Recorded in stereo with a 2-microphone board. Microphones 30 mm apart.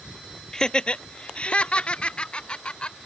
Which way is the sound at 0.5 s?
20° left (ahead or behind).